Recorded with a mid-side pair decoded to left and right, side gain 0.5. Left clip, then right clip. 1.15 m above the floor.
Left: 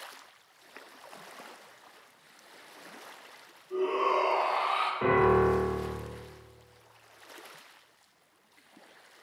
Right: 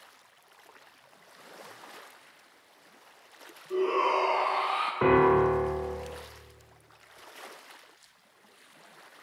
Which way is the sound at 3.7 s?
60° right.